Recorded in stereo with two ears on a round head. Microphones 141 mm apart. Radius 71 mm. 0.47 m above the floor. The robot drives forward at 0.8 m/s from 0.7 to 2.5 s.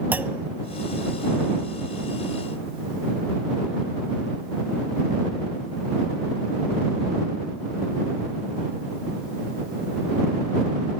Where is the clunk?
10° right (ahead or behind), 0.6 m.